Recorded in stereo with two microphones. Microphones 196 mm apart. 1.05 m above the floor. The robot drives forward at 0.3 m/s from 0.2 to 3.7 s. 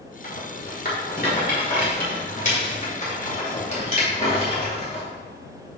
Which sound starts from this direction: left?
A rattle, at 0.2 s.